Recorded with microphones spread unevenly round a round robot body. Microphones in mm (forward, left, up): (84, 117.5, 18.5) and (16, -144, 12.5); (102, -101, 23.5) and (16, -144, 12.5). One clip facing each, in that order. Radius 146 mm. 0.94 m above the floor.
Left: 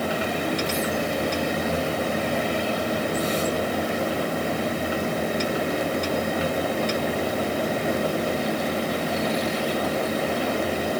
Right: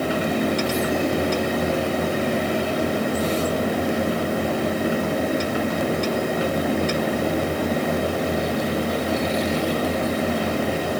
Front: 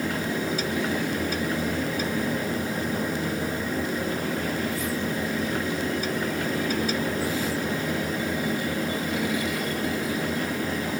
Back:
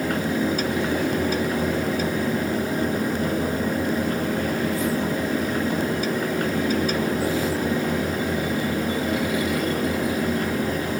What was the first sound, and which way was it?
Only background noise.